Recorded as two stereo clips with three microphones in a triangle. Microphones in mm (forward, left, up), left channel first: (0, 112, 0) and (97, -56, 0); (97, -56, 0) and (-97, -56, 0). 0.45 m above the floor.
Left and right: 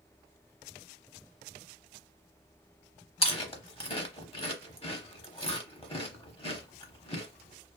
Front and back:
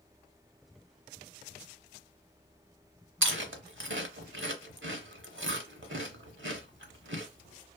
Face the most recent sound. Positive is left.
turn(degrees=180)